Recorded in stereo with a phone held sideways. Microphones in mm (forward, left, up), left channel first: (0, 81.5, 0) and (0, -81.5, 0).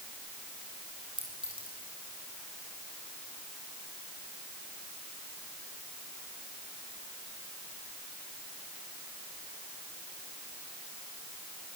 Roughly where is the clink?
Right.